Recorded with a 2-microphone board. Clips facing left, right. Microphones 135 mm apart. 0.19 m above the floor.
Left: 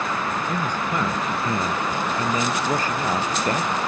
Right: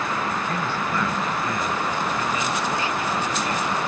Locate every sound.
0.5 s a man speaking: 15° left (ahead or behind); by 3.8 s 50° left (ahead or behind)